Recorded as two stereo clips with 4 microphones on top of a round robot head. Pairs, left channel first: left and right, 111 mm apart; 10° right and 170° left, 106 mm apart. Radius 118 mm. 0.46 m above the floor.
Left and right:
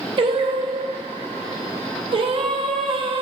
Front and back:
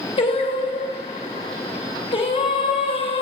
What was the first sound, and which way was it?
Singing, 50° right.